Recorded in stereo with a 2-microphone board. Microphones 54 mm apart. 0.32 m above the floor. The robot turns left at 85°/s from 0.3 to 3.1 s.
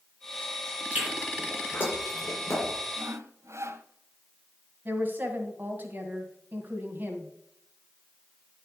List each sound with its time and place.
0.9 s chewing: 25° right (ahead or behind), 5.5 m; by 2.7 s 50° left (ahead or behind), 5.5 m
3.0 s sawing: 60° right (ahead or behind), 0.7 m; by 3.9 s 65° right (ahead or behind), 0.7 m
4.8 s a woman speaking: 40° right (ahead or behind), 2 m